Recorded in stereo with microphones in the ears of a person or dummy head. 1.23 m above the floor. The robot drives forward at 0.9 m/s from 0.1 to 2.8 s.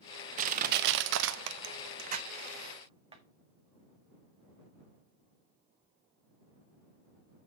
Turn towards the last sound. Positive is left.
turn(degrees=-25)  # may be behind; listen again after turning